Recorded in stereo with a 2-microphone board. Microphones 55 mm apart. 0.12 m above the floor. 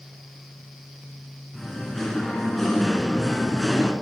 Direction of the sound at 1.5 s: 5° left (ahead or behind).